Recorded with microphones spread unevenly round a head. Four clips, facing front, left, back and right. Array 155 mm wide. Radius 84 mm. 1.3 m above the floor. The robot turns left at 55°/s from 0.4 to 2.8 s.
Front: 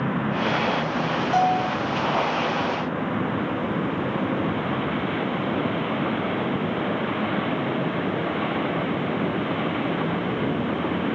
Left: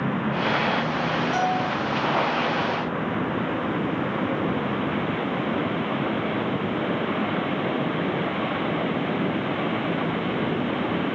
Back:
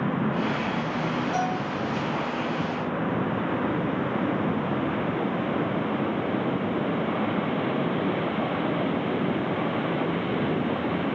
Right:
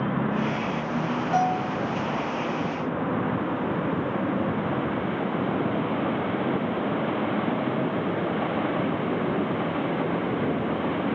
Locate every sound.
1.3 s a bell: straight ahead, 3.5 m; by 1.8 s 25° right, 3.5 m